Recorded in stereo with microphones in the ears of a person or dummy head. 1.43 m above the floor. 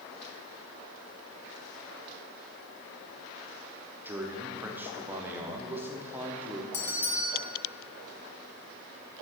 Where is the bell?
55° left (ahead or behind), 1.7 m.